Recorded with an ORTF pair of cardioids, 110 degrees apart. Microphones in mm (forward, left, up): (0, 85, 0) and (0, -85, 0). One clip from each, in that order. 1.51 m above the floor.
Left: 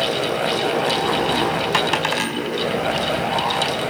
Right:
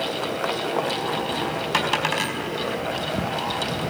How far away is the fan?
About 1.0 m.